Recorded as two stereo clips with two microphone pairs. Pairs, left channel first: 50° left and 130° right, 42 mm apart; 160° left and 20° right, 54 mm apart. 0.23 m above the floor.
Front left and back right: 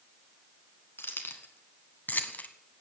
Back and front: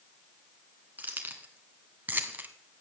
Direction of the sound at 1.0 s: 35° left.